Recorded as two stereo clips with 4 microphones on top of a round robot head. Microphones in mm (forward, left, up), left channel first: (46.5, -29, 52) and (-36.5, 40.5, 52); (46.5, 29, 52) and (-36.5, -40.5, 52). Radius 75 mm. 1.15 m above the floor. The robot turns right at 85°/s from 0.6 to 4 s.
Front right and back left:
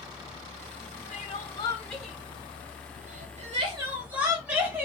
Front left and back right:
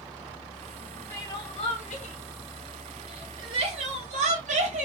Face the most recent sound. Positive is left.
turn(degrees=-145)